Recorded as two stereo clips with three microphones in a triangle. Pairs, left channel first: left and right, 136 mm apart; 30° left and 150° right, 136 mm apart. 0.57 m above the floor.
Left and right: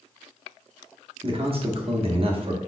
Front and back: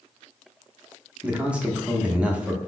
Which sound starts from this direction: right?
A man speaking, at 1.2 s.